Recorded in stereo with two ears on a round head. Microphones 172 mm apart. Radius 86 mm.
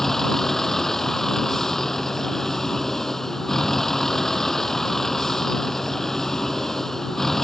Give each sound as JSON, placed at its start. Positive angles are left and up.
{"t": 0.0, "sound": "a vehicle", "side_deg": 0}